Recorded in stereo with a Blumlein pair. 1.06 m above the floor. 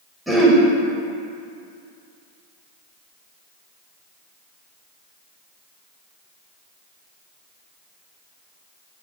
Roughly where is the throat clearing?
Ahead.